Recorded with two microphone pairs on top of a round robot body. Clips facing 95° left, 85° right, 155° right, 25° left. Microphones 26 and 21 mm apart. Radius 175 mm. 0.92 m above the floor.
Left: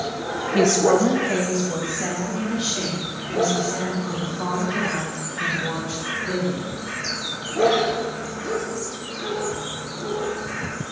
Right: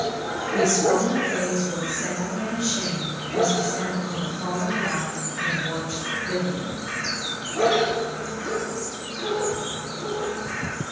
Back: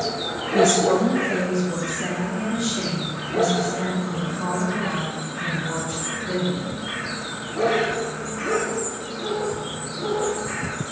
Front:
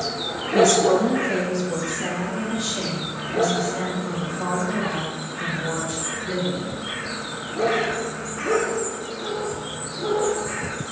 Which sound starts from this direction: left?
A woman speaking, at 0.5 s.